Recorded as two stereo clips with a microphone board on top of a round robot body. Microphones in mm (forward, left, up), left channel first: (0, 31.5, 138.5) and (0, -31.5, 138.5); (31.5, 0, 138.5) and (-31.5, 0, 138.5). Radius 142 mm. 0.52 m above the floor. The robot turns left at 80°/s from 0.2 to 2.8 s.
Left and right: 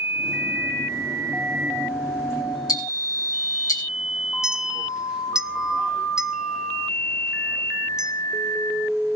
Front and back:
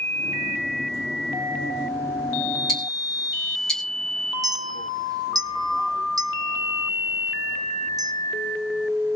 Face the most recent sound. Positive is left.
turn(degrees=-170)